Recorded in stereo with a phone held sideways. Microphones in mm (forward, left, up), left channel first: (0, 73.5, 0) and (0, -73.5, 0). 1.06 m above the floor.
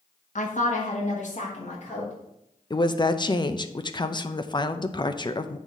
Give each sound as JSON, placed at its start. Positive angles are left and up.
{"t": 0.3, "sound": "a woman speaking", "side_deg": 60, "distance_m": 1.2}
{"t": 2.7, "sound": "a woman speaking", "side_deg": 30, "distance_m": 0.6}